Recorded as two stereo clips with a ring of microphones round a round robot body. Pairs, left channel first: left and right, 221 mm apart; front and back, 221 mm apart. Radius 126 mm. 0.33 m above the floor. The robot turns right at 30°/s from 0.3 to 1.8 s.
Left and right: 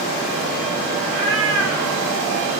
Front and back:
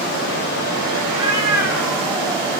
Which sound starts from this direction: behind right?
A cat meowing, at 1.1 s.